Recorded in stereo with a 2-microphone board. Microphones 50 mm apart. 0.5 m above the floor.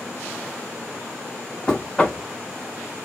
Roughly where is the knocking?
Centre.